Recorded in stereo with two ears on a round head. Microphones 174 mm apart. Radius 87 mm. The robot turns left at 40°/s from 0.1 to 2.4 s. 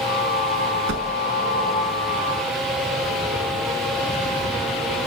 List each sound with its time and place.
0.9 s a whoosh: 75° right (ahead or behind), 6 m; by 1.1 s 70° right (ahead or behind), 6 m